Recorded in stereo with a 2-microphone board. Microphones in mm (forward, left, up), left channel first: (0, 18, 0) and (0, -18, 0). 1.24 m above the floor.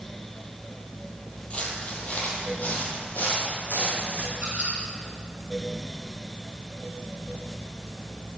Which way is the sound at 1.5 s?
35° left (ahead or behind).